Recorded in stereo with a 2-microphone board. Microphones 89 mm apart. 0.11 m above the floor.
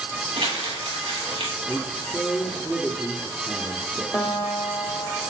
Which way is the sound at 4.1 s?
10° right (ahead or behind).